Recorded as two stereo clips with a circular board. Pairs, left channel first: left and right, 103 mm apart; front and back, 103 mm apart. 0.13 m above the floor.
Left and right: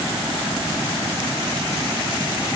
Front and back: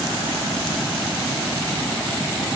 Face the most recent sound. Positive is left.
No sound to turn to.